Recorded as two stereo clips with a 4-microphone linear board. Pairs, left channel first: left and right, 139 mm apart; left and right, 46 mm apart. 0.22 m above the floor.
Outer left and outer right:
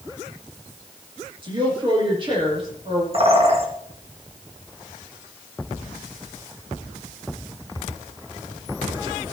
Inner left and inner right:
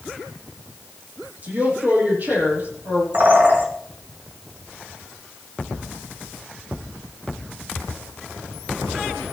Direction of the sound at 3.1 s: 40° right (ahead or behind).